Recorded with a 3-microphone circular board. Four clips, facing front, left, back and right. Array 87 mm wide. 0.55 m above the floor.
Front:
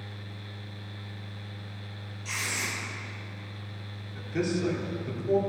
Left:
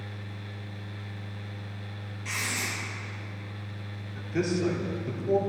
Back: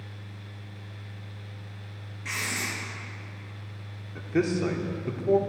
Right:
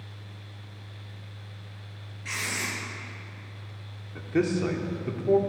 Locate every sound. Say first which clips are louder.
2.2 s writing: right 1 dB, back 1 dB; 160° right, 4.5 m
4.2 s a man speaking: right 3 dB, back 4 dB; 140° right, 1.4 m